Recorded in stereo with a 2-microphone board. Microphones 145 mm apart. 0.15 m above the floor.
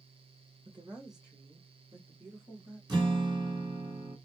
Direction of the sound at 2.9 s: 30° right (ahead or behind).